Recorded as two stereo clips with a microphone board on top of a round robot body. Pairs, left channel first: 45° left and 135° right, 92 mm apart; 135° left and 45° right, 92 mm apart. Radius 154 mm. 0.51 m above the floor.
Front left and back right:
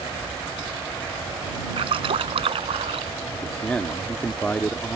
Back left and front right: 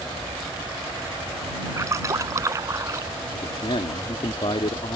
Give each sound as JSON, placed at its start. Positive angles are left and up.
{"t": 1.8, "sound": "a splash", "azimuth_deg": -105}
{"t": 3.3, "sound": "a man speaking", "azimuth_deg": 125}